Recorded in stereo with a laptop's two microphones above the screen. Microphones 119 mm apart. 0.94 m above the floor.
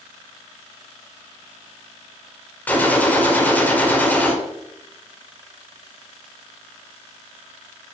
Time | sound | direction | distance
2.7 | a gunshot | 15° left (ahead or behind) | 2.5 m